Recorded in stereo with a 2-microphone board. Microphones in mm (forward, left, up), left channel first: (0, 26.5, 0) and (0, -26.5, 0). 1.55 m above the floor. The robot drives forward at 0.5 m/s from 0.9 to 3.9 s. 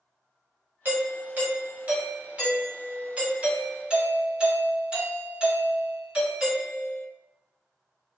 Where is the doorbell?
40° right (ahead or behind), 1.2 m; by 7.0 s 15° right (ahead or behind), 2.5 m.